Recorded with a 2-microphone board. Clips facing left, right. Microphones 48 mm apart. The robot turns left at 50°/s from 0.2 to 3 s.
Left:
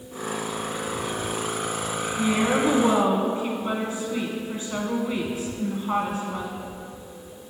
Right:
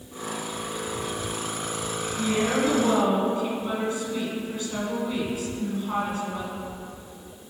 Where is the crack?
No crack in this recording.